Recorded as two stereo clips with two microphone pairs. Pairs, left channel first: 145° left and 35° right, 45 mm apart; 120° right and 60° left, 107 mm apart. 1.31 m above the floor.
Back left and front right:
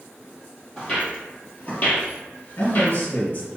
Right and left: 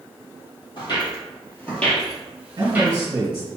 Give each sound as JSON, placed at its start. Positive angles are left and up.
{"t": 0.8, "sound": "footsteps", "azimuth_deg": -150, "distance_m": 2.0}
{"t": 2.6, "sound": "a man speaking", "azimuth_deg": 110, "distance_m": 2.0}